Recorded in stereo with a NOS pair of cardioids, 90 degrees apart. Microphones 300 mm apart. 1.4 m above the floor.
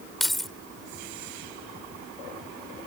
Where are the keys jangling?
Straight ahead.